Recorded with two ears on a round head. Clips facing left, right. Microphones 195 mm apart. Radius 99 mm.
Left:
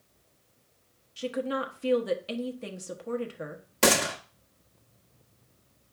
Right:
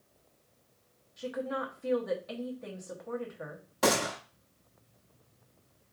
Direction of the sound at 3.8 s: 35° left (ahead or behind).